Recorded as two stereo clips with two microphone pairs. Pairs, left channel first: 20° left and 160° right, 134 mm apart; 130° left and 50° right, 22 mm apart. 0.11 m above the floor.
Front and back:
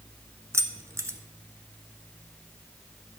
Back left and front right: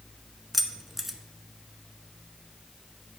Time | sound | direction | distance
0.5 | keys jangling | 130° right | 0.9 m